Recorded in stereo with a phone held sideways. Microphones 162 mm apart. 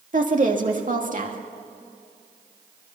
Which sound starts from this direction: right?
A woman speaking, at 0.1 s.